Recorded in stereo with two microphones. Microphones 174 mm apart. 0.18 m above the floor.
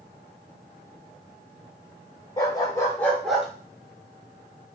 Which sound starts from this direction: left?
A dog barking, at 2.4 s.